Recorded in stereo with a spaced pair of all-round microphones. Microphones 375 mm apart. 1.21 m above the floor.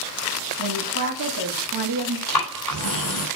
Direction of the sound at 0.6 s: 60° right (ahead or behind).